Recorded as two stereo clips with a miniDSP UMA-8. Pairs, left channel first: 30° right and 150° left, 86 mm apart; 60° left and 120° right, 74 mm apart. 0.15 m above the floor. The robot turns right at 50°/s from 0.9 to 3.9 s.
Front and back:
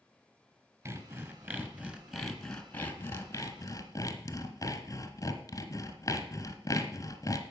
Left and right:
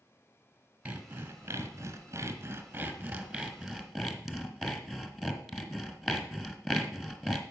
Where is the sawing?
175° left, 1.3 m; by 7.4 s 35° right, 1.3 m.